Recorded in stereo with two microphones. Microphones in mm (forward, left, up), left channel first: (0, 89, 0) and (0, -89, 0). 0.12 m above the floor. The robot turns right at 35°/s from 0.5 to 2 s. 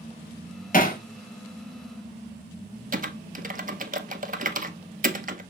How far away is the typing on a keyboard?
About 0.8 m.